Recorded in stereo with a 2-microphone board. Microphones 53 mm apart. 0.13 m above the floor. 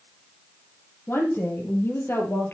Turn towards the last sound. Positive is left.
turn(degrees=50)  # may be behind; listen again after turning